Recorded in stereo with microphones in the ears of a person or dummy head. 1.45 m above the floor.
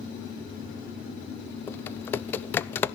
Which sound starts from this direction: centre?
Typing on a keyboard, at 1.7 s.